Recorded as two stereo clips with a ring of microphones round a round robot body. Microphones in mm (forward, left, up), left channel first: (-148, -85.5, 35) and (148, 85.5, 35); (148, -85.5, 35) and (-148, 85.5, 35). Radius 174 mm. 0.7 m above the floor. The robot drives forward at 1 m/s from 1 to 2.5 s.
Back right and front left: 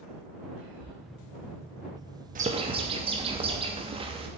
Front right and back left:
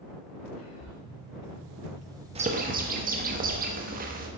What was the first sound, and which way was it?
Whispering, 15° left.